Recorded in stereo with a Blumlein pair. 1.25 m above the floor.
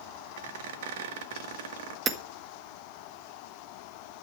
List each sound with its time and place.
0.4 s a squeak: 55° right, 1.4 m
2.1 s hammering: 20° right, 1.7 m